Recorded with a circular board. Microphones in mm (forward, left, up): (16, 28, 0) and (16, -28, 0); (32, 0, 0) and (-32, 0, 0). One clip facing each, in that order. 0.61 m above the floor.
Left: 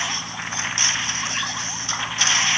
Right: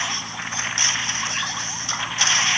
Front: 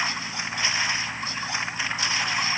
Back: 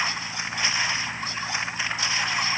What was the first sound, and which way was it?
Only background noise.